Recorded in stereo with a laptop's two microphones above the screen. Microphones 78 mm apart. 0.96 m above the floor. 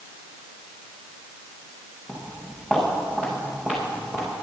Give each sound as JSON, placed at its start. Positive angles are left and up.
{"t": 2.1, "sound": "footsteps", "side_deg": -5, "distance_m": 5.0}